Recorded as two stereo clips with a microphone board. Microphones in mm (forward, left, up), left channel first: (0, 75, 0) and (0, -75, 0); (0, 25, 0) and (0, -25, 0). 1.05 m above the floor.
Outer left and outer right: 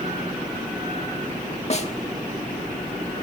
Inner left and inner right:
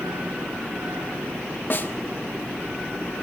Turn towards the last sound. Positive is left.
turn(degrees=45)  # may be behind; listen again after turning